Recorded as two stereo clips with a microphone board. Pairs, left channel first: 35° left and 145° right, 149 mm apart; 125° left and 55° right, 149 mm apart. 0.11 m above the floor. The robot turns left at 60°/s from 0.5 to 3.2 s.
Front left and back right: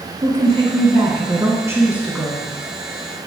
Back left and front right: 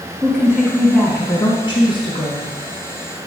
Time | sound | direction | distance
0.2 | a woman speaking | 135° right | 1.9 m